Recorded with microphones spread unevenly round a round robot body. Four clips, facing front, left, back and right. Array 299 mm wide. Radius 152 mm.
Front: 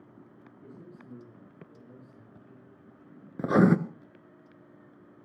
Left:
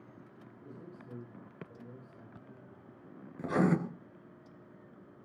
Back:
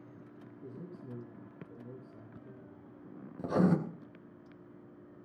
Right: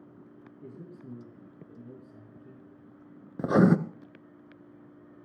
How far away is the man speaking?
About 9 m.